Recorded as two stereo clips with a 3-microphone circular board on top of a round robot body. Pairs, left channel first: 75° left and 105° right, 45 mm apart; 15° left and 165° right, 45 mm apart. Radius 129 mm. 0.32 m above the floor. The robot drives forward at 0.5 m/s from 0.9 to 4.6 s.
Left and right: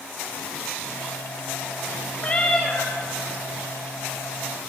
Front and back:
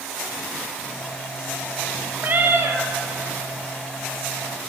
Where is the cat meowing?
145° left, 0.7 m; by 2.9 s 155° left, 1.0 m.